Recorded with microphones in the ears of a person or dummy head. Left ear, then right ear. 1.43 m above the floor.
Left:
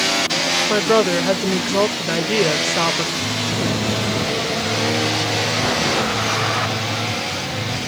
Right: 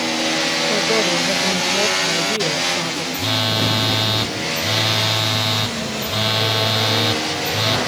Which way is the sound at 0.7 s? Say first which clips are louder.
Left 2 dB; 45° left (ahead or behind).